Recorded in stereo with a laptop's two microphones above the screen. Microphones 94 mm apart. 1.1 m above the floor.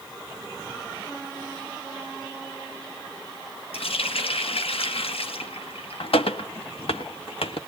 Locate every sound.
3.7 s a running tap: 85° left, 1.1 m